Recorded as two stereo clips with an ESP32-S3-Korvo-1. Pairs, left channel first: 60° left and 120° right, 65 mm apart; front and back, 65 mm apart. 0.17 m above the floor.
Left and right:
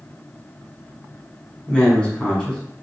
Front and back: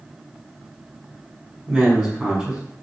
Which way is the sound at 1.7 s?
115° left.